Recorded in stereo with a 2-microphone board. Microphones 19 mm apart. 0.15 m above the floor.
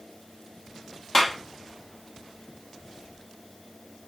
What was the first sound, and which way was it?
A clap, 20° left (ahead or behind).